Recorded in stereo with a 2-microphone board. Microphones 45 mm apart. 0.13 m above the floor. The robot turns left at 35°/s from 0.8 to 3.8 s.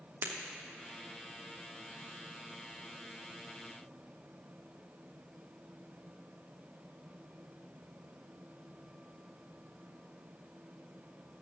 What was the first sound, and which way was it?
Breaking glass, 55° right (ahead or behind).